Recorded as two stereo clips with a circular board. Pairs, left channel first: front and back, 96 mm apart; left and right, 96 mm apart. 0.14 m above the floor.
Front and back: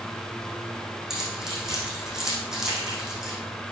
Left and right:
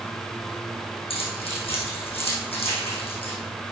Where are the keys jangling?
95° left, 5 m.